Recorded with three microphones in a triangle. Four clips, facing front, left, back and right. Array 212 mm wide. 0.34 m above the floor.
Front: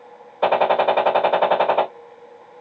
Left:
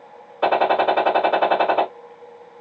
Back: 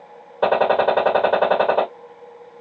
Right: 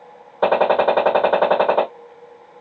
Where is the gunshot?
120° right, 1.6 m.